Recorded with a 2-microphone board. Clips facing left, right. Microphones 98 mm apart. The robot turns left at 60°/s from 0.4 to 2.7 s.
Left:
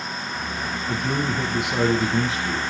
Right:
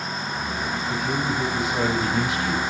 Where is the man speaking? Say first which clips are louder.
Left 2 dB; 120° left, 5.5 m; by 2.6 s 20° left, 5.5 m.